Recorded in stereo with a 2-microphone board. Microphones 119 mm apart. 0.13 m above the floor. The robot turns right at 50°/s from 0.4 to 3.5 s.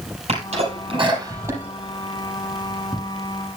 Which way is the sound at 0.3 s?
65° right (ahead or behind).